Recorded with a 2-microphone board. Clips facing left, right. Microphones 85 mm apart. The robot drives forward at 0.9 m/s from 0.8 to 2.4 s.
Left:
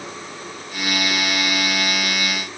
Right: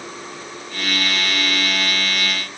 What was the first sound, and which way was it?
Only background noise.